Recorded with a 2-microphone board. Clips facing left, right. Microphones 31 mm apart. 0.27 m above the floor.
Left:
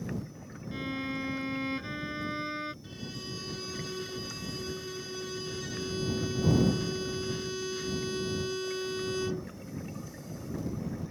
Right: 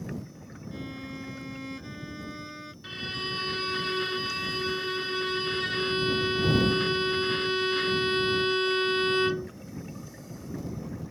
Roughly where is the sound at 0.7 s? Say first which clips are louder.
Left 5 dB; left.